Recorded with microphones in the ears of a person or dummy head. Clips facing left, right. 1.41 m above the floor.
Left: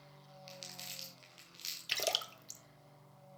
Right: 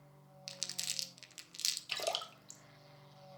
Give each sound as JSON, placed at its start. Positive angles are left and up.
{"t": 0.5, "sound": "crumpling", "side_deg": -75, "distance_m": 1.6}
{"t": 1.9, "sound": "a splash", "side_deg": 20, "distance_m": 1.1}